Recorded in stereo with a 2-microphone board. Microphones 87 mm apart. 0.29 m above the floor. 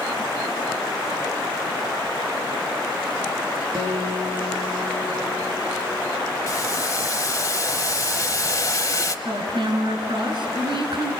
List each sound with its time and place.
3.8 s a guitar: 35° right (ahead or behind), 4 m
6.5 s boiling: 40° left (ahead or behind), 0.8 m
9.2 s a woman speaking: 65° right (ahead or behind), 3 m